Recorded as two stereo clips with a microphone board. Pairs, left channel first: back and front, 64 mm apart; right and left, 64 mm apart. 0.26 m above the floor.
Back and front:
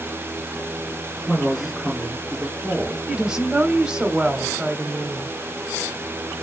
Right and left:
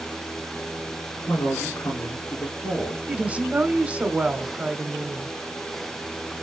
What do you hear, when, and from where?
1.3 s a man speaking: 95° right, 2.5 m
3.1 s a woman speaking: 60° left, 1.0 m